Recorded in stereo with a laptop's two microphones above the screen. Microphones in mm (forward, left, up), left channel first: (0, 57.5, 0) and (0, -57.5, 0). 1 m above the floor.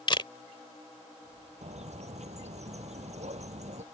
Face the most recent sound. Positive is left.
turn(degrees=-70)  # may be behind; listen again after turning